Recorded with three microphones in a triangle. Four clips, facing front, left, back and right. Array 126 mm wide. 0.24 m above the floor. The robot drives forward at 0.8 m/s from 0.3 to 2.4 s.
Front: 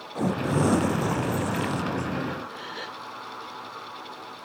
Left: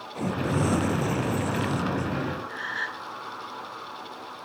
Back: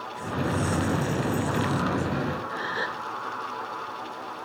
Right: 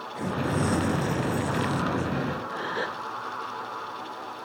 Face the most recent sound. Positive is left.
turn(degrees=-105)